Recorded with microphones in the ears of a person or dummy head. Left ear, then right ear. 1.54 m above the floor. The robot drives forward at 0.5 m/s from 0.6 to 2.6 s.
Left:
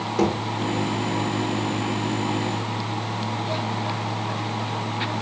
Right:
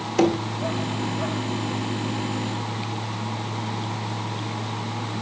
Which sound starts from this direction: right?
Knocking, at 0.2 s.